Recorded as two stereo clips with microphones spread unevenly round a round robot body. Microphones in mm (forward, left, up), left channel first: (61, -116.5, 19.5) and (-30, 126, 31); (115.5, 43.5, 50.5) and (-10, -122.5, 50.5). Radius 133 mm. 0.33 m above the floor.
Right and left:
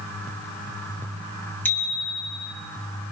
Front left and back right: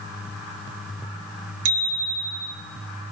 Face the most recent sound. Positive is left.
turn(degrees=-150)